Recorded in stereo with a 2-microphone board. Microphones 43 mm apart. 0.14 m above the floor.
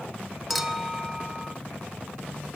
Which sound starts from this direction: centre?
A clink, at 0.5 s.